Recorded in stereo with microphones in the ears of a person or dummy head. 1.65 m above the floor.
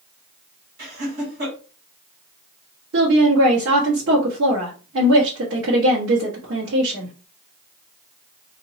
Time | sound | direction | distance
0.8 | laughter | 65° right (ahead or behind) | 2 m
2.9 | a woman speaking | 75° right (ahead or behind) | 1.4 m